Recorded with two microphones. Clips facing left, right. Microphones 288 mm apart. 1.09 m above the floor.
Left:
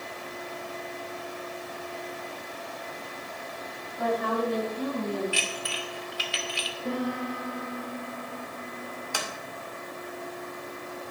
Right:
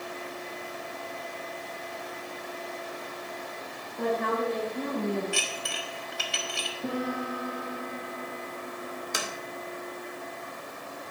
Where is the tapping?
25° right (ahead or behind), 1.9 m.